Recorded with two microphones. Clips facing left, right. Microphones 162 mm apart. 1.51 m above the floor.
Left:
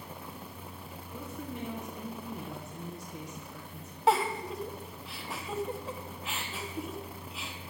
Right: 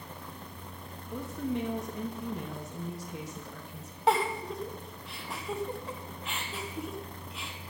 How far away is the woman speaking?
About 2 m.